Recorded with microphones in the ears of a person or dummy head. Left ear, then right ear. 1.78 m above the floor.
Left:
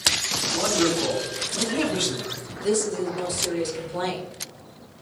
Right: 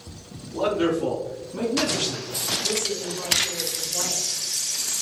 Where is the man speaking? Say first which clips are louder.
Right 2 dB; 40° left (ahead or behind), 2 m; by 2.3 s 25° left (ahead or behind), 2.5 m.